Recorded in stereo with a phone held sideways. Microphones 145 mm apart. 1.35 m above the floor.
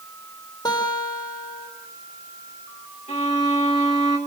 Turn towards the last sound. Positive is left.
turn(degrees=50)  # may be behind; listen again after turning